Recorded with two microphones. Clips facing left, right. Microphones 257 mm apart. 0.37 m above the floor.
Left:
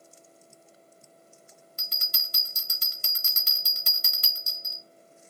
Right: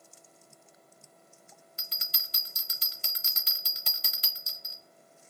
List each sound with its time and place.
1.8 s a bell: 50° left (ahead or behind), 0.7 m